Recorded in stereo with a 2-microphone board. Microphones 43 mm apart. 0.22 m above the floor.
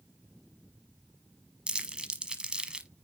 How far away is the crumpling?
About 1.0 m.